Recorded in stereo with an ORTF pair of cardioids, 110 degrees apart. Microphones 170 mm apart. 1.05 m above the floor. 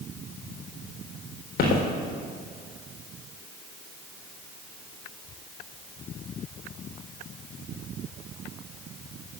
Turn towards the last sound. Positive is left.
turn(degrees=60)